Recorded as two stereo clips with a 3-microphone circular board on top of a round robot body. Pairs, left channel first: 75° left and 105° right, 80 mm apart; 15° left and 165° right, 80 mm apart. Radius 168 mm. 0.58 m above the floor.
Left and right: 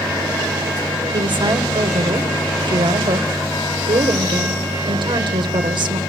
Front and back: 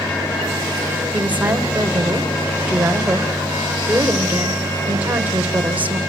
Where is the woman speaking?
95° right, 3.5 m.